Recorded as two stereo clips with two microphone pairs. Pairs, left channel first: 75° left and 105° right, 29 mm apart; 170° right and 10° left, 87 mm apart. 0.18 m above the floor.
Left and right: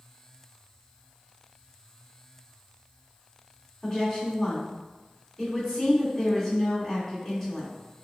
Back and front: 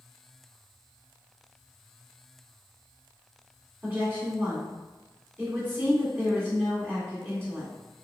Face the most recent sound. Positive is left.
turn(degrees=20)